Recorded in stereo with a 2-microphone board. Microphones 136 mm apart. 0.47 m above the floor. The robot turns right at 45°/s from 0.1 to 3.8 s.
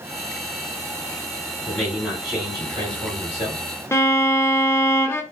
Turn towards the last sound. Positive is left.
turn(degrees=20)  # may be behind; listen again after turning